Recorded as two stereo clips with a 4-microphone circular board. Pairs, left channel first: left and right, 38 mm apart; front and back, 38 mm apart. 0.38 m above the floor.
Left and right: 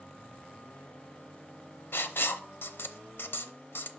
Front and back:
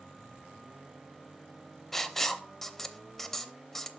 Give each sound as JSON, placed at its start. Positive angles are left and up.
{"t": 1.9, "sound": "writing", "azimuth_deg": 80, "distance_m": 0.6}